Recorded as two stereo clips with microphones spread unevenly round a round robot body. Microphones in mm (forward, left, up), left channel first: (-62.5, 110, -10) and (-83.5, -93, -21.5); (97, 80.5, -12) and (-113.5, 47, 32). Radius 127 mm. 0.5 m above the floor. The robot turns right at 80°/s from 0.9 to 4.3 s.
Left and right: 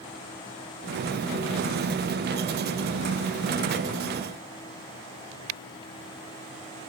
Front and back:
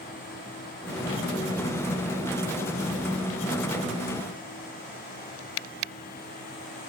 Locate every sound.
Only background noise.